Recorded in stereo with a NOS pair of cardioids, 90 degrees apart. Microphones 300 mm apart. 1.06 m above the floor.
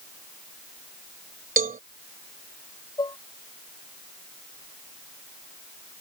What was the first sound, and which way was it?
A cowbell, 30° right.